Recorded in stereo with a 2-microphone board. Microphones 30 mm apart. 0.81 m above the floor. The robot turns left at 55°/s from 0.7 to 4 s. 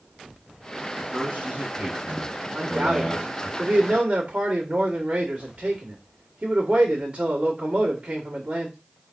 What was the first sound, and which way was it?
A man speaking, 90° right.